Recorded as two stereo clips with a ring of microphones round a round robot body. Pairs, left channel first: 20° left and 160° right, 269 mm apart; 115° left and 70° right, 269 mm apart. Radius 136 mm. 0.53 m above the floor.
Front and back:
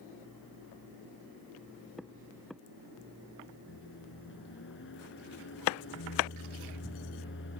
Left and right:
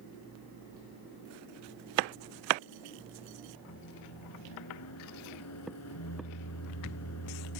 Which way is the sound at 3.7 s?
75° left.